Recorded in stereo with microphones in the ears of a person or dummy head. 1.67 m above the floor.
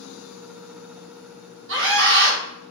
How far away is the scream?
About 1.3 m.